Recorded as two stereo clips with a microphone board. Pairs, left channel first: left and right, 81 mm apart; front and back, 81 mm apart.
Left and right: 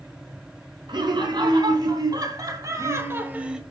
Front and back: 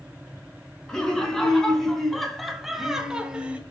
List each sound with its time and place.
0.9 s laughter: 85° right, 4 m; by 3.6 s 155° right, 1.4 m